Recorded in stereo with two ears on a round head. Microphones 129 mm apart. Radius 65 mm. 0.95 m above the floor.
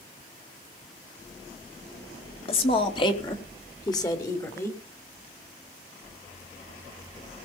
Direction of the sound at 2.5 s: 40° left (ahead or behind).